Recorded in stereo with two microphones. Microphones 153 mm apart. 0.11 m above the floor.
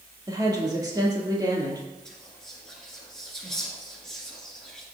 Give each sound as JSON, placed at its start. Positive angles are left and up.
{"t": 0.3, "sound": "a woman speaking", "side_deg": -25, "distance_m": 3.0}
{"t": 2.0, "sound": "whispering", "side_deg": 5, "distance_m": 1.8}